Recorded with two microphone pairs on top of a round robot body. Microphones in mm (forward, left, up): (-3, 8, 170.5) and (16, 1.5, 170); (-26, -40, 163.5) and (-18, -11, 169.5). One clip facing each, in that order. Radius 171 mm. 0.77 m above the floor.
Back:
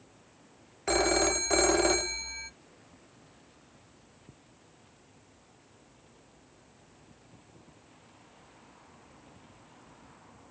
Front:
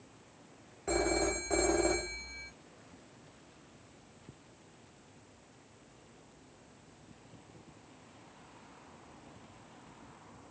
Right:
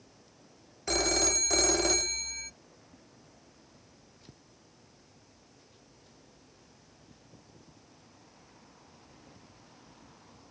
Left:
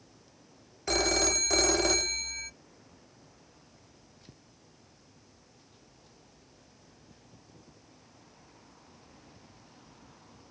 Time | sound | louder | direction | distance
0.9 | a phone ringing | back 5 dB, left 1 dB | 170° left | 0.6 m